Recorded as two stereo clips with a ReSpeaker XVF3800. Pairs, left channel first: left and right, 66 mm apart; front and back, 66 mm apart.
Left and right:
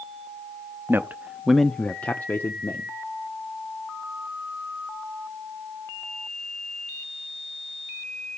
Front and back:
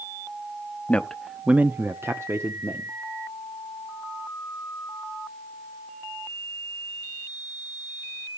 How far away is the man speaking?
About 0.7 m.